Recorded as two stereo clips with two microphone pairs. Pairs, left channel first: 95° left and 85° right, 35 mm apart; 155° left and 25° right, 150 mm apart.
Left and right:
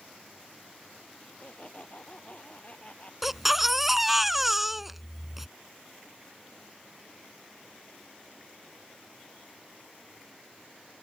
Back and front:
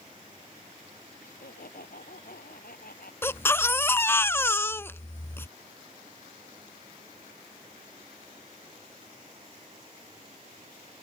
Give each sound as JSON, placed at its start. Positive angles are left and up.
{"t": 1.2, "sound": "laughter", "azimuth_deg": 145}
{"t": 3.2, "sound": "a baby crying", "azimuth_deg": -160}